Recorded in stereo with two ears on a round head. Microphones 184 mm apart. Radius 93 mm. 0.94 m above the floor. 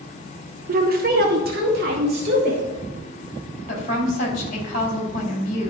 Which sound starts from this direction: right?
A woman speaking, at 0.7 s.